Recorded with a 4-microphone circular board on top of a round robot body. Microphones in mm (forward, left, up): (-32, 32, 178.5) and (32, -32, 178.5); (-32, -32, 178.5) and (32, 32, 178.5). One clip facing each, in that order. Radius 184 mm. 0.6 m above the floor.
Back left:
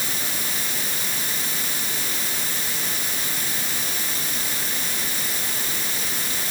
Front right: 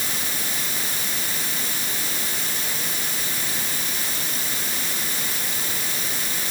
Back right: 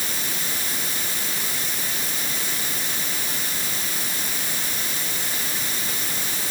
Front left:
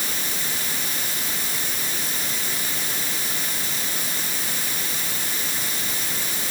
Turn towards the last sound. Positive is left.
No sound to turn to.